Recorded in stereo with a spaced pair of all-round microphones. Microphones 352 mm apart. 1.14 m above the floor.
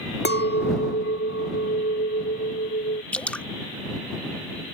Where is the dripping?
5° left (ahead or behind).